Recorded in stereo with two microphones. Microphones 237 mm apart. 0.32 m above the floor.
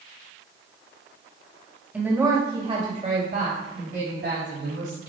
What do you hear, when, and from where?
1.9 s a woman speaking: 5° right (ahead or behind), 1.8 m; by 5.0 s 65° right (ahead or behind), 3 m